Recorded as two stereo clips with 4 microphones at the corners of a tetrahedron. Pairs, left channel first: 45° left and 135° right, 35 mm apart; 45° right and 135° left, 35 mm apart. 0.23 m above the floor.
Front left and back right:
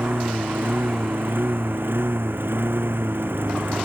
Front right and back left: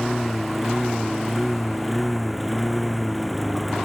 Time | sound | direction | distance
0.0 | a lawn mower | 135° right | ?